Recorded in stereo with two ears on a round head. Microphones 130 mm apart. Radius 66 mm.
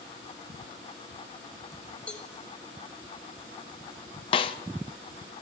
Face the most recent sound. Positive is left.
turn(degrees=35)  # may be behind; listen again after turning